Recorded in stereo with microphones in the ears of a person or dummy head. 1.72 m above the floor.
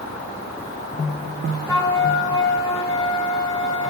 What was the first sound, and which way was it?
A flute, 25° left (ahead or behind).